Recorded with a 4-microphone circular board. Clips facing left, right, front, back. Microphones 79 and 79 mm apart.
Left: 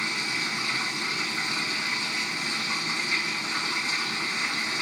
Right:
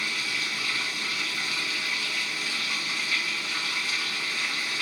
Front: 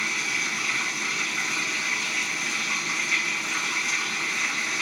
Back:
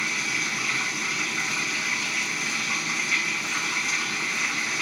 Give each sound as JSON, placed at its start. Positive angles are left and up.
{"t": 0.0, "sound": "running water", "azimuth_deg": 95, "distance_m": 1.1}